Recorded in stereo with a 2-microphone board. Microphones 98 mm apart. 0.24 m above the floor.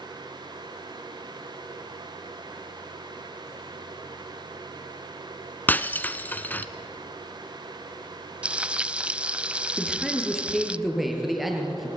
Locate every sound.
5.7 s breaking glass: 20° left (ahead or behind), 1.1 m
8.4 s frying: 10° right (ahead or behind), 0.5 m
9.8 s a man speaking: centre (ahead or behind), 6 m